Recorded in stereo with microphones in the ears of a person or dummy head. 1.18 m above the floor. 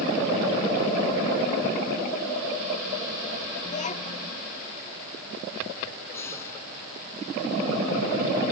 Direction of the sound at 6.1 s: 20° left (ahead or behind).